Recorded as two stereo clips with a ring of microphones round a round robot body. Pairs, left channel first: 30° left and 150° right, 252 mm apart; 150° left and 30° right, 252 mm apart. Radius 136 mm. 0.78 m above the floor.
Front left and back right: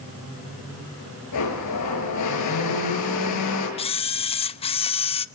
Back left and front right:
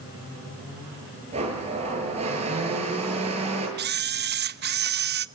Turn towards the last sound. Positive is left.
turn(degrees=-25)